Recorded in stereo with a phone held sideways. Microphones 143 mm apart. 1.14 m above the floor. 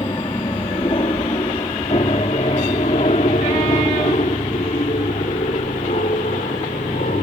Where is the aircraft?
35° left (ahead or behind); by 7.2 s 65° left (ahead or behind).